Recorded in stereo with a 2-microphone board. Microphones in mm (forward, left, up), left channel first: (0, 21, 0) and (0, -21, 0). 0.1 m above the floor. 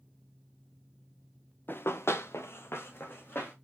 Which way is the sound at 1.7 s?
55° left (ahead or behind).